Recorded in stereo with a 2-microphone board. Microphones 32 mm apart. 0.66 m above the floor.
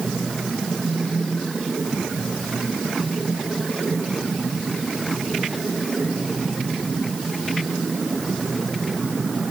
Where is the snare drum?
I don't hear a snare drum.